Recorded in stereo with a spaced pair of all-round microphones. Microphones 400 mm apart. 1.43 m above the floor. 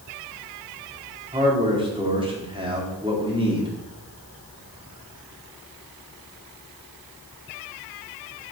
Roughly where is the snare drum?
I don't hear a snare drum.